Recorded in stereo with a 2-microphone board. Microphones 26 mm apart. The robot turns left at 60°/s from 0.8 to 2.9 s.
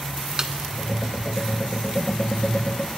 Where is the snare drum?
30° right (ahead or behind), 0.5 m.